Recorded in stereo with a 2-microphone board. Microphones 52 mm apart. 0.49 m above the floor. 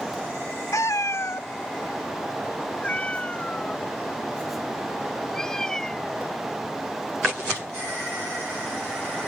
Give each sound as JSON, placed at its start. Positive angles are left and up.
{"t": 0.7, "sound": "a cat meowing", "side_deg": 85}